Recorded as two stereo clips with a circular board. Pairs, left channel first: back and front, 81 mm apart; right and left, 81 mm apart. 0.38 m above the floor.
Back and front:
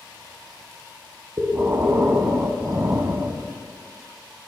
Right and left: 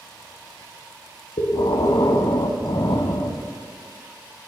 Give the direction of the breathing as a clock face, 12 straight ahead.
2 o'clock.